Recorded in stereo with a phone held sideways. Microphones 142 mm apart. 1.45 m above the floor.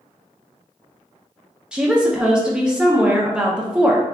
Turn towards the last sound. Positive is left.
turn(degrees=-5)  # may be behind; listen again after turning